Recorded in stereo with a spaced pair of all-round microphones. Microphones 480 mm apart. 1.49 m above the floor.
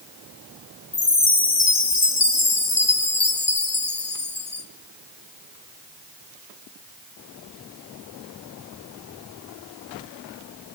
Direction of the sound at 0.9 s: 40° left (ahead or behind).